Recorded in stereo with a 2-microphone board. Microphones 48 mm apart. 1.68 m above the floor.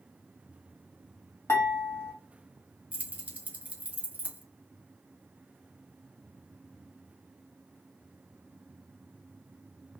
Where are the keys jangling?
30° right (ahead or behind), 0.9 m.